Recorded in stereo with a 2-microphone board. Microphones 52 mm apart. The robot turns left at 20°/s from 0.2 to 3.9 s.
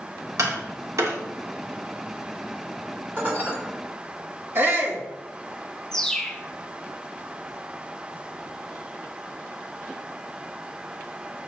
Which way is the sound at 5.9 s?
10° left (ahead or behind).